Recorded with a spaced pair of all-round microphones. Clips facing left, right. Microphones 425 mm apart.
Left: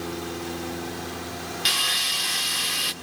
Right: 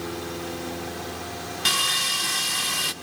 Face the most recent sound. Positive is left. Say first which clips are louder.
# right 2 dB
turn(degrees=-65)  # may be behind; listen again after turning